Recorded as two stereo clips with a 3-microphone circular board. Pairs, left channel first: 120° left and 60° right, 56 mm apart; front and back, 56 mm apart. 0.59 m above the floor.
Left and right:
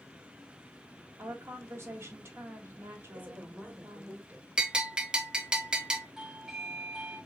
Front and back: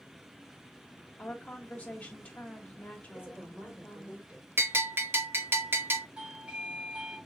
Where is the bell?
135° right, 0.8 m.